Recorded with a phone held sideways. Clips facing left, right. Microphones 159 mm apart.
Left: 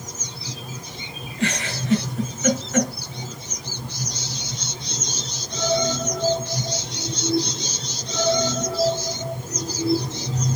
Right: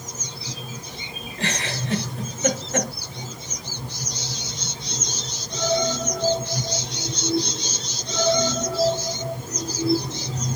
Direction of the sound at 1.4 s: 35° right (ahead or behind).